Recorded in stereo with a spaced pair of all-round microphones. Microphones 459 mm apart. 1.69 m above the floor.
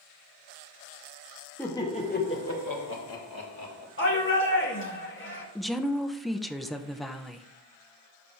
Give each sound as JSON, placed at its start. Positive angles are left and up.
{"t": 1.6, "sound": "laughter", "side_deg": 5, "distance_m": 2.5}
{"t": 4.0, "sound": "a shout", "side_deg": 25, "distance_m": 2.0}
{"t": 5.5, "sound": "a woman speaking", "side_deg": 0, "distance_m": 0.7}